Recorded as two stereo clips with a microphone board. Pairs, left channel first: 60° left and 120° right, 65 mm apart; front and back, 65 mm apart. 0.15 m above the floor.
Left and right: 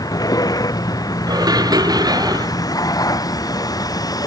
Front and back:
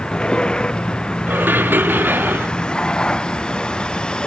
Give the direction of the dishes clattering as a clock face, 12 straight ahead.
4 o'clock.